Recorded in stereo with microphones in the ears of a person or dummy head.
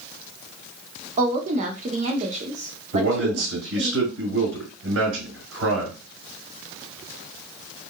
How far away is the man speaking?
About 1.7 m.